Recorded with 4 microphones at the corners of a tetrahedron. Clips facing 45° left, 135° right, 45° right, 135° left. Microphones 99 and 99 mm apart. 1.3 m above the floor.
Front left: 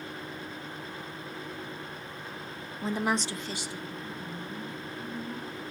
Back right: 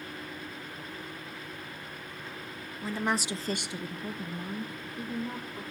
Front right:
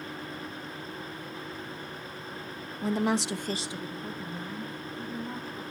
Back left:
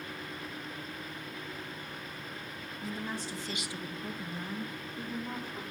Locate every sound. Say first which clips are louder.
2.8 s a woman speaking: front left 2 dB, front right 12 dB; 20° right, 0.8 m; by 5.6 s 155° right, 3 m